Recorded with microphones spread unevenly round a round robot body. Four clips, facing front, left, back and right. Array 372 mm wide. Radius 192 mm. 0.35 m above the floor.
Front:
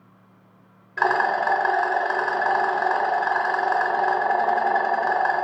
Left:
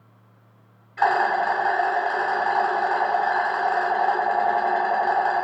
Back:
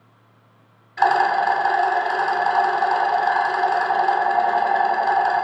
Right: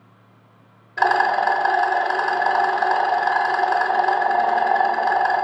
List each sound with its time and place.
1.0 s a rattle: 50° right, 0.9 m